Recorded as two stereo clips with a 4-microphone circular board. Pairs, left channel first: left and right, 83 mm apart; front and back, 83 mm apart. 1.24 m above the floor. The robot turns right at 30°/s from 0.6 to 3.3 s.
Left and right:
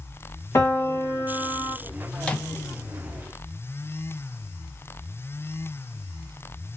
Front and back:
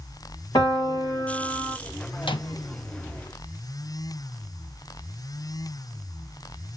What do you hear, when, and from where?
0.6 s a piano: 35° left, 1.5 m; by 1.8 s 70° left, 1.5 m
2.2 s a microwave: 10° left, 0.6 m; by 2.5 s 20° left, 0.6 m